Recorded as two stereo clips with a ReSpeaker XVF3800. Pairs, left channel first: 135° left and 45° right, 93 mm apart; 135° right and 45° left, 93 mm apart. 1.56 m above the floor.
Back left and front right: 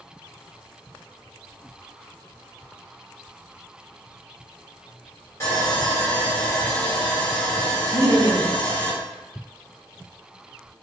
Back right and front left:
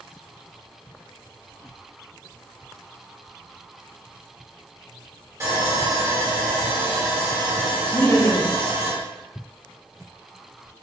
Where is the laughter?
80° right, 0.8 m.